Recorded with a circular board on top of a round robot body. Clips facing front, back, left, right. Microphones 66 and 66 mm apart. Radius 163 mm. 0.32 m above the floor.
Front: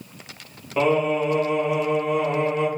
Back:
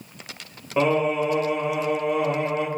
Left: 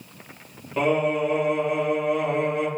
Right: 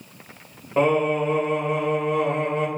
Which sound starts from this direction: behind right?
Singing, at 0.8 s.